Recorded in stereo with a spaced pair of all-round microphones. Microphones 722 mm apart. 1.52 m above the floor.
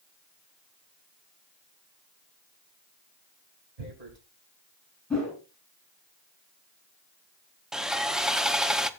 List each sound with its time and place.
3.8 s tearing paper: 55° right (ahead or behind), 3 m
5.1 s a whoosh: centre (ahead or behind), 8 m
7.7 s sawing: centre (ahead or behind), 0.7 m